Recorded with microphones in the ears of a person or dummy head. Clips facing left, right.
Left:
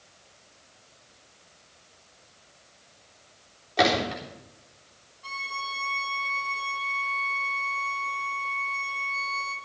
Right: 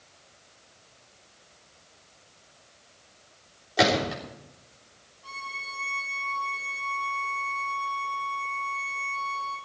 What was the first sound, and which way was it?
A gunshot, 5° left (ahead or behind).